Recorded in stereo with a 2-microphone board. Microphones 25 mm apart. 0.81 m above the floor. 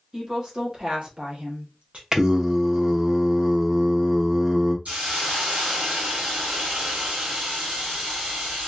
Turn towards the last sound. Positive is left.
turn(degrees=-65)  # may be behind; listen again after turning